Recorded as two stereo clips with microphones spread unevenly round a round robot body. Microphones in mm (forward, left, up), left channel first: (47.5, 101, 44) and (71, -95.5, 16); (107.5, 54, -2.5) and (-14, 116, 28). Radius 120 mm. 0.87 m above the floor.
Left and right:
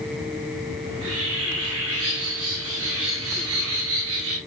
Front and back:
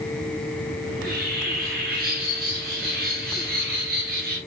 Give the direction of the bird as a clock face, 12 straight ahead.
5 o'clock.